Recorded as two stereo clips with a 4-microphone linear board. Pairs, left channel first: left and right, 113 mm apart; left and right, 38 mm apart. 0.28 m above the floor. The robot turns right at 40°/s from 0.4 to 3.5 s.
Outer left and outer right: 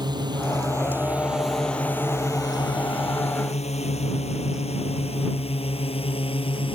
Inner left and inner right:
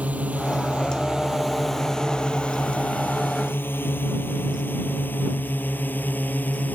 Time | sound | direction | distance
0.0 | a drone | 40° right (ahead or behind) | ?